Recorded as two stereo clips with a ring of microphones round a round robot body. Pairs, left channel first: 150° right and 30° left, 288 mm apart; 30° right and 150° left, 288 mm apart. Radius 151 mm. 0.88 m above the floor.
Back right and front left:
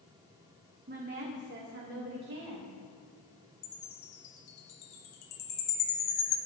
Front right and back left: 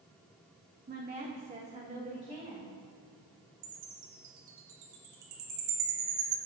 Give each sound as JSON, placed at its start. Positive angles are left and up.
{"t": 0.9, "sound": "a woman speaking", "azimuth_deg": 90, "distance_m": 1.5}
{"t": 3.6, "sound": "a chime", "azimuth_deg": 175, "distance_m": 2.5}